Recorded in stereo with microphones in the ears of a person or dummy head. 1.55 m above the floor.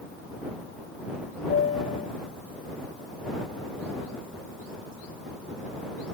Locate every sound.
1.5 s a piano: 45° left (ahead or behind)